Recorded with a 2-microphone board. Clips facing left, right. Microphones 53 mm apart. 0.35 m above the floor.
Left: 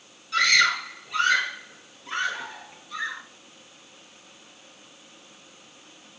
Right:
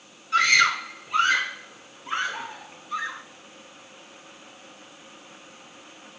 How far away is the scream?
About 4.5 m.